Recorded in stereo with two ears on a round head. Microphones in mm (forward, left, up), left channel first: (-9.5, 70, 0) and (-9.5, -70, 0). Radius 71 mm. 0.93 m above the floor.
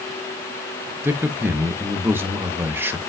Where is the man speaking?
15° right (ahead or behind), 0.8 m.